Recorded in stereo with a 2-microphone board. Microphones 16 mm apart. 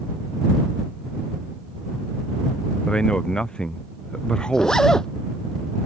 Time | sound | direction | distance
2.9 | a man speaking | 75° left (ahead or behind) | ?
4.5 | a zipper | 40° left (ahead or behind) | ?